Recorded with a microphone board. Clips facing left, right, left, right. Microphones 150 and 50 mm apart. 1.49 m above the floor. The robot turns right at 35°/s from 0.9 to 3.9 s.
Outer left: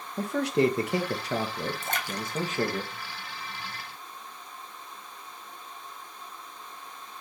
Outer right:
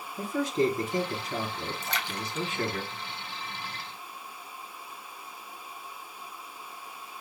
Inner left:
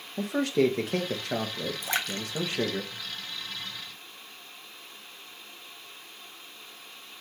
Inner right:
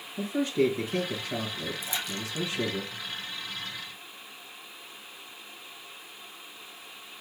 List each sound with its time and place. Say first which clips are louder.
0.2 s a man speaking: outer left 2 dB, inner left 1 dB; 80° left, 1.3 m; by 2.8 s 150° left, 1.3 m
1.8 s a splash: outer left 2 dB, inner left 3 dB; 50° left (ahead or behind), 0.7 m; by 3.7 s 10° right (ahead or behind), 0.7 m